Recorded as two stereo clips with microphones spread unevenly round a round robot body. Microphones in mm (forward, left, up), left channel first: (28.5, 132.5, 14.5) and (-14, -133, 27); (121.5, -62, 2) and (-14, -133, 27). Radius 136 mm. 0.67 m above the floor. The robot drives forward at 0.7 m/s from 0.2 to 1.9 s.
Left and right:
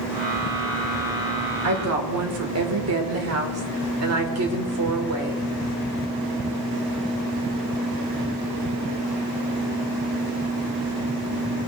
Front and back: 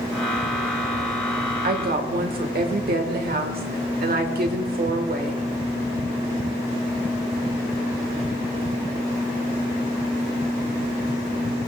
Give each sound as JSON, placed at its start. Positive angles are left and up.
{"t": 1.6, "sound": "a woman speaking", "azimuth_deg": -130, "distance_m": 1.9}